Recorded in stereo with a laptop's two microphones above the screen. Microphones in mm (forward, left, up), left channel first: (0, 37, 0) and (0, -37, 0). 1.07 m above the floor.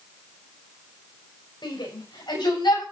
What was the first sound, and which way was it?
A shout, 70° left (ahead or behind).